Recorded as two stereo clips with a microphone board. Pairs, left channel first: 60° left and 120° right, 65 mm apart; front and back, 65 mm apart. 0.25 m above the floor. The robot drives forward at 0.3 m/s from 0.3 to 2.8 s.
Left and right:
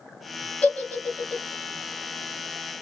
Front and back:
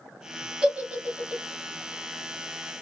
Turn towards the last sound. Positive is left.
turn(degrees=150)